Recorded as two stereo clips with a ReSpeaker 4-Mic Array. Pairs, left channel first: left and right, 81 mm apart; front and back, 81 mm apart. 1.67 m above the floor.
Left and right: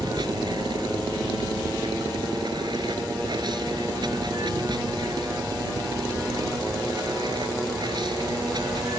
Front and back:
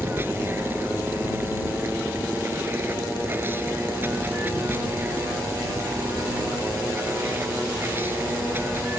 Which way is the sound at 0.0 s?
115° right.